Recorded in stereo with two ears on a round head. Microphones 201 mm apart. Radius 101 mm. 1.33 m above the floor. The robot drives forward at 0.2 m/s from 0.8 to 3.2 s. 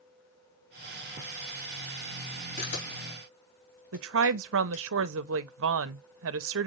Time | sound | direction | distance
2.6 | a camera shutter | 40° left (ahead or behind) | 3 m
3.9 | a woman speaking | 60° right (ahead or behind) | 0.5 m